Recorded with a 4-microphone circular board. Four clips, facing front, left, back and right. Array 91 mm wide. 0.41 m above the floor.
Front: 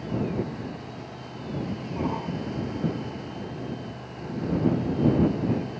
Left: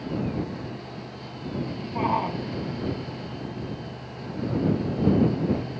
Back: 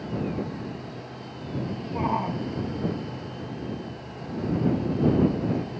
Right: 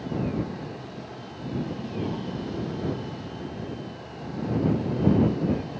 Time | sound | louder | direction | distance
1.9 | a shout | left 9 dB, back 4 dB | 120° left | ?